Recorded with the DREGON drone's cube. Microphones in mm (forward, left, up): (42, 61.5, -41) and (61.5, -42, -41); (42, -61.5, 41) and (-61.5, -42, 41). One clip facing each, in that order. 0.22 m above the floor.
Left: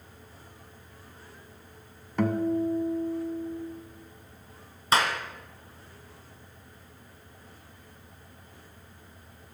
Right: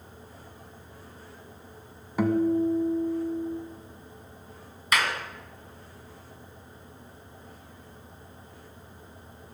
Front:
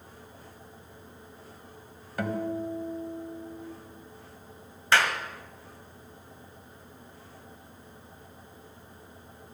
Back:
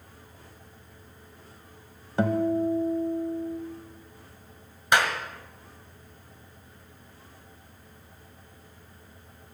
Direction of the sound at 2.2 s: 160° right.